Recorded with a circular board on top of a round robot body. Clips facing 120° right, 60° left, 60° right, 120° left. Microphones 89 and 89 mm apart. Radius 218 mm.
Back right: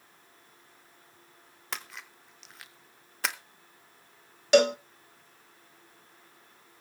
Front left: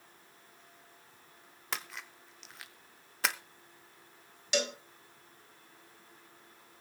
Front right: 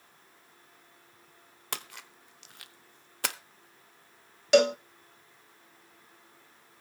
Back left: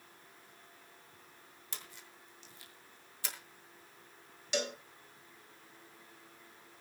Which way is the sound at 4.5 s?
85° right.